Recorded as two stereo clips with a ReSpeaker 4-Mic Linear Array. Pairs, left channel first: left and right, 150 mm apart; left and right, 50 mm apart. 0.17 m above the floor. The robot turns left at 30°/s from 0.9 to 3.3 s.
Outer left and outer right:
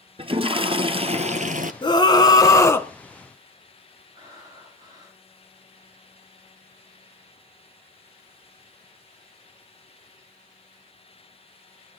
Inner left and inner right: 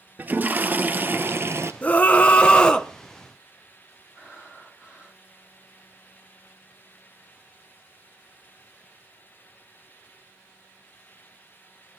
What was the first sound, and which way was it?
A toilet flushing, 35° right (ahead or behind).